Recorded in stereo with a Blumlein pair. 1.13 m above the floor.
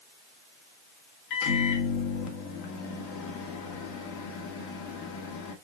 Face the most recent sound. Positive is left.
turn(degrees=40)